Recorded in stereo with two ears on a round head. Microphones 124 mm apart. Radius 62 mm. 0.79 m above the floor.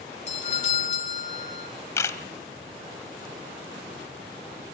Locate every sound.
0.3 s a doorbell: 55° left (ahead or behind), 3 m
2.0 s a camera shutter: 20° left (ahead or behind), 1.2 m